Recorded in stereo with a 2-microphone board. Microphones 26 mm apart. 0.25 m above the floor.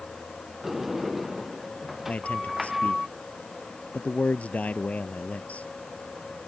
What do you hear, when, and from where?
0.6 s a sliding door: 10° right (ahead or behind)
2.1 s a man speaking: 60° left (ahead or behind)